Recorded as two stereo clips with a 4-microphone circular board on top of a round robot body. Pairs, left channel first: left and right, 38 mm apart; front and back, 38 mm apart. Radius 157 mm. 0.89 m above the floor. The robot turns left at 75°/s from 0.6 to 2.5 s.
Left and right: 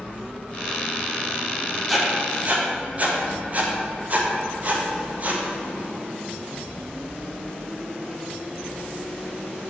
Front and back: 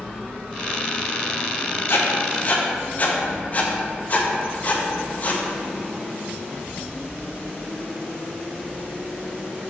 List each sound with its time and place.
1.9 s writing: straight ahead, 0.9 m; by 5.4 s 45° right, 0.9 m